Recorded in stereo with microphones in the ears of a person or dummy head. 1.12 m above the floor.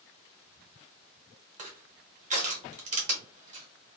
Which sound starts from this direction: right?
Crushing, at 1.6 s.